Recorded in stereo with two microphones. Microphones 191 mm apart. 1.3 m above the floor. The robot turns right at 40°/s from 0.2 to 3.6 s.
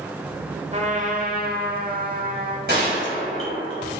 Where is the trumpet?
135° right, 1.4 m; by 2.6 s 60° right, 1.4 m.